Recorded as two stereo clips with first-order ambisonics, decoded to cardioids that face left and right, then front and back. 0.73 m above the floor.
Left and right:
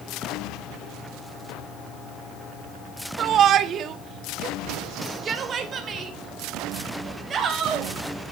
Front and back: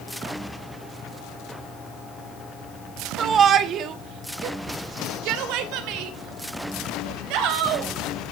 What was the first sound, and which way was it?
A shout, 120° right.